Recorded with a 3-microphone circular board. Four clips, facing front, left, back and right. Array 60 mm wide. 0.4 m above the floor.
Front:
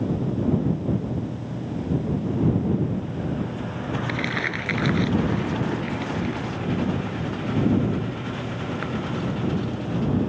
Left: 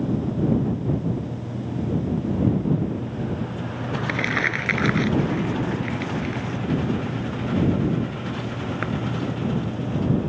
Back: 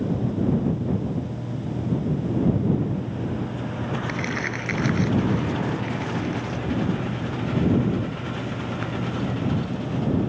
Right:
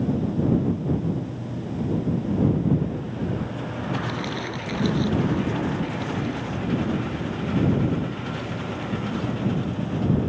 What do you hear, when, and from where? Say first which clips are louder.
4.1 s crumpling: left 6 dB, front 1 dB; 85° left